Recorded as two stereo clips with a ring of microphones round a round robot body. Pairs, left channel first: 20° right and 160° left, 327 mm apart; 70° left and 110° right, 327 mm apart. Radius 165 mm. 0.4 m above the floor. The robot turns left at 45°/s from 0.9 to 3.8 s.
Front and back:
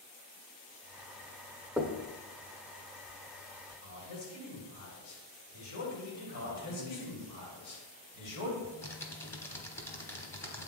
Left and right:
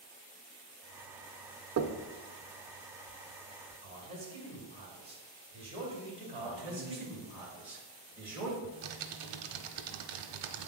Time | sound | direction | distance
1.8 | knocking | 115° right | 0.6 m
3.8 | a man speaking | 45° right | 2.5 m
6.4 | a man speaking | 30° right | 2.5 m
8.6 | typing on a keyboard | 105° right | 0.8 m